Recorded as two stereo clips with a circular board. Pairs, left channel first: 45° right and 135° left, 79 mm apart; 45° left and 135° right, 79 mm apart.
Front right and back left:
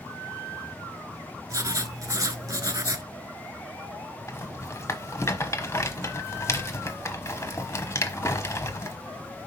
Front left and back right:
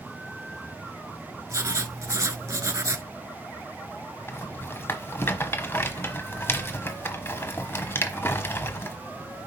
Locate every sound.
1.5 s writing: 175° left, 0.8 m
4.3 s a rattle: 5° right, 1.0 m